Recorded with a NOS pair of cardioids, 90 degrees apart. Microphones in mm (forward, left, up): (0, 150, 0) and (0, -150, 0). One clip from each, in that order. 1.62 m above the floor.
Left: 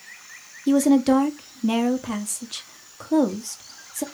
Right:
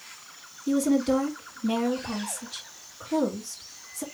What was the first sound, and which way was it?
A woman speaking, 45° left.